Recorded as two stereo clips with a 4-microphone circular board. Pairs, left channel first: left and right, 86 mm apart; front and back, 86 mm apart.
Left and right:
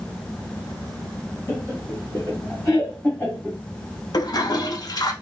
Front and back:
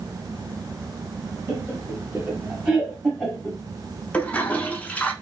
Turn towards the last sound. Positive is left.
turn(degrees=70)